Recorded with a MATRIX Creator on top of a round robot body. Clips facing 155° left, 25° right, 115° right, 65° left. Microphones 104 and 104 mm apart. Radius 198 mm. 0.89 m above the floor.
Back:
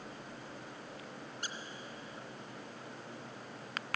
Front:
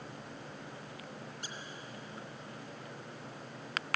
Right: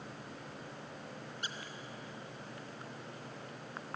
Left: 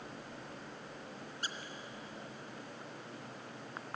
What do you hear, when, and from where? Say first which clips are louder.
1.4 s a squeak: back 2 dB, left 2 dB; 120° left, 0.6 m